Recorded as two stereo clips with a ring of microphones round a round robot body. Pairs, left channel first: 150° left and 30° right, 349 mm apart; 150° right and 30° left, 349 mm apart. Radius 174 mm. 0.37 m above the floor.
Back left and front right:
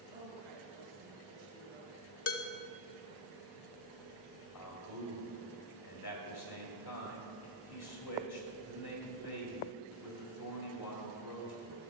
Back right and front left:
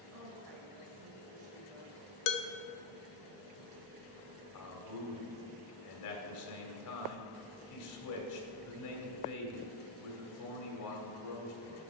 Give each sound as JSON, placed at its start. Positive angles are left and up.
{"t": 0.1, "sound": "a woman speaking", "azimuth_deg": 0, "distance_m": 2.5}
{"t": 2.3, "sound": "dishes clattering", "azimuth_deg": -170, "distance_m": 0.7}
{"t": 4.5, "sound": "a man speaking", "azimuth_deg": 180, "distance_m": 2.0}